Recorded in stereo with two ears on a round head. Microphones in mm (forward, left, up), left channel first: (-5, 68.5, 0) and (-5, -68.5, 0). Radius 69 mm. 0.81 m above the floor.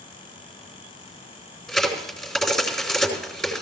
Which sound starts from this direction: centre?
A crack, at 1.7 s.